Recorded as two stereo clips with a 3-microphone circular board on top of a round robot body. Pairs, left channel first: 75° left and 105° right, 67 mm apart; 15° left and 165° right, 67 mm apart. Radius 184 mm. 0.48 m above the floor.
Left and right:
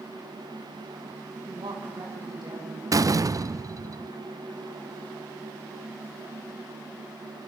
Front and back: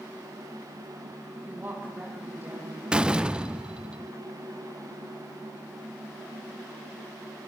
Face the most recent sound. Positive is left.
turn(degrees=-90)